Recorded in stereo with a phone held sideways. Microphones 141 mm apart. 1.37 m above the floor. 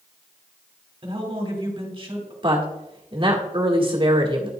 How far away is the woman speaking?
About 1.5 m.